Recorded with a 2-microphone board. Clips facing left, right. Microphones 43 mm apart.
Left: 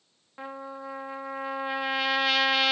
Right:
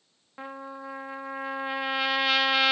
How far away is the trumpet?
About 0.8 m.